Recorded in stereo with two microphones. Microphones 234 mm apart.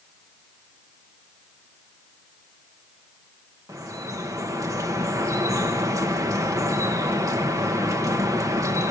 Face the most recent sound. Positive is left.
turn(degrees=-15)  # may be behind; listen again after turning